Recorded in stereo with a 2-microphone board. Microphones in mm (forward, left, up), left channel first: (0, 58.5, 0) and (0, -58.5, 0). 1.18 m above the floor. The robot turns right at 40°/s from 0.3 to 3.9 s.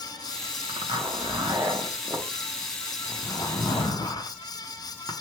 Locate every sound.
0.7 s a zipper: 50° right (ahead or behind), 0.7 m; by 5.1 s 40° left (ahead or behind), 0.7 m